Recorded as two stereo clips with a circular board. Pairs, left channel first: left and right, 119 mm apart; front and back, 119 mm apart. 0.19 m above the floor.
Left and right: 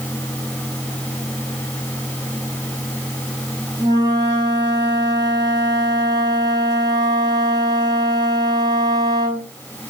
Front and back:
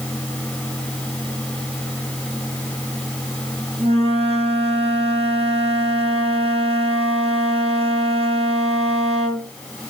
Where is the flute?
145° right, 2 m.